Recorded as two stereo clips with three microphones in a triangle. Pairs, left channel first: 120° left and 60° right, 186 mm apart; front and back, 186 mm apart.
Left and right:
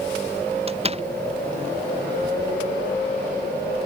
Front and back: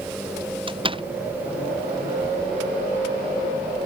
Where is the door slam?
115° right.